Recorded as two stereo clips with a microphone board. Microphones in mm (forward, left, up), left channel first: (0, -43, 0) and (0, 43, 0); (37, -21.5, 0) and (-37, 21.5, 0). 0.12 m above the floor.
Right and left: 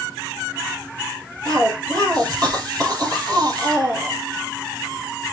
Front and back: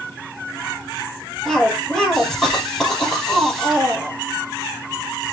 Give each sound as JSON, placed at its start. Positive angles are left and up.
{"t": 1.4, "sound": "a cough", "azimuth_deg": 55, "distance_m": 3.5}